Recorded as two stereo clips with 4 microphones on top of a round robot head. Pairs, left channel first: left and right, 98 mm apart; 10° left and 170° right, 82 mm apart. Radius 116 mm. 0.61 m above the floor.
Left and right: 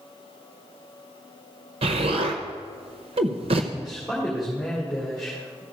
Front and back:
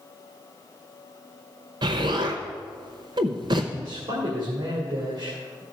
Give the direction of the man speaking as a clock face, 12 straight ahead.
6 o'clock.